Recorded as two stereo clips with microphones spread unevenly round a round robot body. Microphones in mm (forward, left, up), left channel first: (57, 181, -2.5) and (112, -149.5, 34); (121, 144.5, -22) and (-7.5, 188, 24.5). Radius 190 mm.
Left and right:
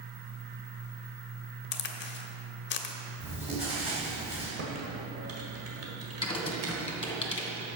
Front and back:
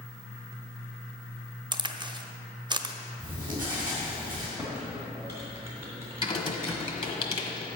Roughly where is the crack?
Left.